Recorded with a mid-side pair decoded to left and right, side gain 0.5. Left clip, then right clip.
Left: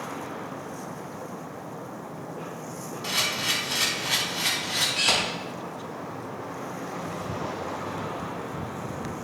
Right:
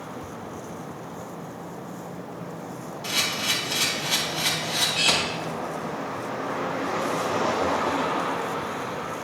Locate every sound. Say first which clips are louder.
3.0 s a camera shutter: right 1 dB; 5° left, 4 m